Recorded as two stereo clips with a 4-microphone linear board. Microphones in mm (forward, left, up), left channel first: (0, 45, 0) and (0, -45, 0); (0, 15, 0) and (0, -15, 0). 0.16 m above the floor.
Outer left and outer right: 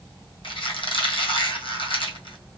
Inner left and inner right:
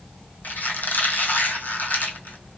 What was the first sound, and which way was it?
A squeak, 75° left (ahead or behind).